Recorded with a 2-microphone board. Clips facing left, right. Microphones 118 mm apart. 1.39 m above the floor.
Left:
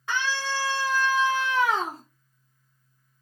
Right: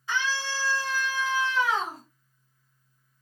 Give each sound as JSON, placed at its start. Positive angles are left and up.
{"t": 0.1, "sound": "a scream", "side_deg": 65, "distance_m": 4.0}